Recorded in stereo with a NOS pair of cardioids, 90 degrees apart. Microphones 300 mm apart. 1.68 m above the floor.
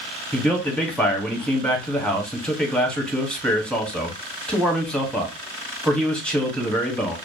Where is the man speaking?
5° left, 1.0 m.